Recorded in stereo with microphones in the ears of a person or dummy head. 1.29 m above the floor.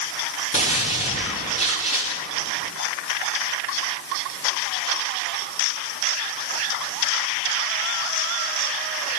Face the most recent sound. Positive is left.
turn(degrees=35)  # may be behind; listen again after turning